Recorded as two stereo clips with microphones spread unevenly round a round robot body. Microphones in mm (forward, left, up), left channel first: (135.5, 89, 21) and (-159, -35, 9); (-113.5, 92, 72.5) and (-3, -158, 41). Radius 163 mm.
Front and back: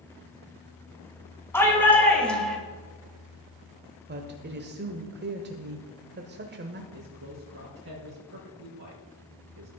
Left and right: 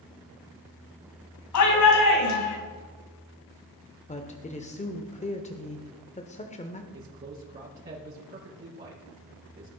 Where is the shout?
105° left, 4 m; by 2.6 s 110° left, 3.5 m.